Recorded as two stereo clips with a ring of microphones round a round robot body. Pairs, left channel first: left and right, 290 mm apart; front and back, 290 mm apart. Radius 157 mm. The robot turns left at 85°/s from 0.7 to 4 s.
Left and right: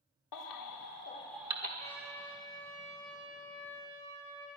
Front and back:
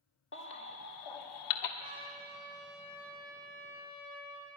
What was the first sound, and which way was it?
A baby crying, 55° left.